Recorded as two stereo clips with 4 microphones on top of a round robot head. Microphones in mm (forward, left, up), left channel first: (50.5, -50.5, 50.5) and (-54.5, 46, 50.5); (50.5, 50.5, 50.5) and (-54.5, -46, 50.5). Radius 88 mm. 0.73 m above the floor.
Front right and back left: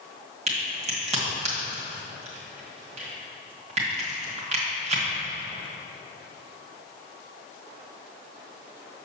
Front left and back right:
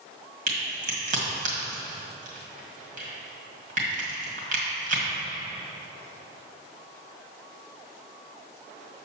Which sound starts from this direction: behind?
A crack, at 0.5 s.